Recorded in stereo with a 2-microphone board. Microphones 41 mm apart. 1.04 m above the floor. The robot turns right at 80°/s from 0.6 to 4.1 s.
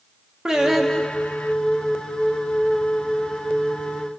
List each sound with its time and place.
0.5 s singing: 10° right, 0.7 m; by 1.5 s 65° left, 0.7 m